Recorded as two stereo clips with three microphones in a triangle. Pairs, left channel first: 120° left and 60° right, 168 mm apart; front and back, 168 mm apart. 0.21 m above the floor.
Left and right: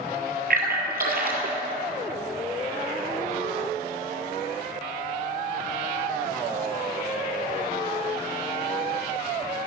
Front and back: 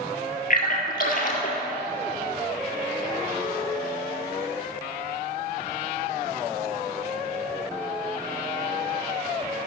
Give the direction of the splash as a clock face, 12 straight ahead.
1 o'clock.